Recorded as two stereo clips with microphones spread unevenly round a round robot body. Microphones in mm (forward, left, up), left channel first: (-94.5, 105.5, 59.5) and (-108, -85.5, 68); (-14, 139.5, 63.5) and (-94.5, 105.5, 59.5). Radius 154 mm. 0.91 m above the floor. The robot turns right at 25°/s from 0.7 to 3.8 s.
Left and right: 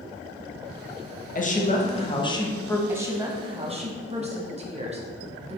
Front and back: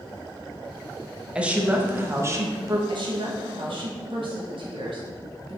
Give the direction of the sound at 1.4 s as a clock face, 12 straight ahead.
8 o'clock.